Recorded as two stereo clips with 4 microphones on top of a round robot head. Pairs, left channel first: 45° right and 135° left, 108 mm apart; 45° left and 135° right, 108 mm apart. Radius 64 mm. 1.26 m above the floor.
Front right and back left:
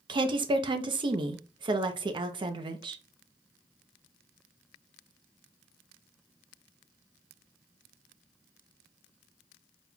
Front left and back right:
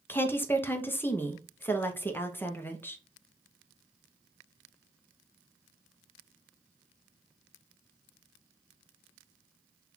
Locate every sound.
0.1 s a woman speaking: 110° left, 0.8 m